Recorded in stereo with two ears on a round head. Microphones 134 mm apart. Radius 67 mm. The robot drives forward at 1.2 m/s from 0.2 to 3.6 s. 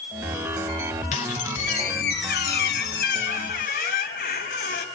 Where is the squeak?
55° left (ahead or behind), 3.5 m; by 4.8 s 70° left (ahead or behind), 3 m.